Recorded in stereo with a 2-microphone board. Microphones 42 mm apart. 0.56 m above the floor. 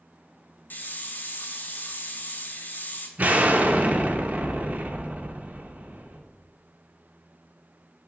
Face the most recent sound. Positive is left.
turn(degrees=-40)  # may be behind; listen again after turning